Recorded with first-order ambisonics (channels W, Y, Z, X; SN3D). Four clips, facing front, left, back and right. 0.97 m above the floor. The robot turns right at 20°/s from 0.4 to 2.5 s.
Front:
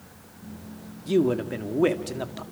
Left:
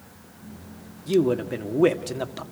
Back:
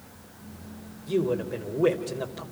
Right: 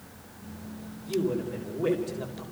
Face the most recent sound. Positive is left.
turn(degrees=70)